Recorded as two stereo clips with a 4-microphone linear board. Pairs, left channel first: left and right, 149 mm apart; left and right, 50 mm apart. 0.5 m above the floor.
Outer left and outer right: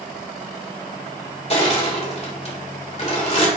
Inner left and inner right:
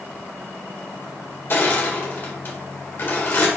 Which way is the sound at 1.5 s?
45° left (ahead or behind).